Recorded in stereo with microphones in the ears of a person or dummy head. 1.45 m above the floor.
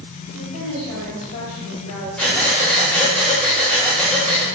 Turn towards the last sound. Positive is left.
turn(degrees=0)  # may be behind; listen again after turning